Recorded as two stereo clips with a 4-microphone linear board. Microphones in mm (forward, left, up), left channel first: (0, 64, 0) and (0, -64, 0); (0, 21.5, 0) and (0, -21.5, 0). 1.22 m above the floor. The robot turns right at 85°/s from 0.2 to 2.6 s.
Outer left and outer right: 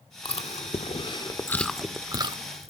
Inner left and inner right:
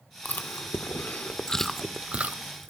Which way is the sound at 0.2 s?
45° left (ahead or behind).